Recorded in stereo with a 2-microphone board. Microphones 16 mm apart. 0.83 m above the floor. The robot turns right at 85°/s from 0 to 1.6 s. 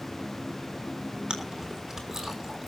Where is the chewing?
50° right (ahead or behind), 3 m; by 2.7 s 25° right (ahead or behind), 3 m.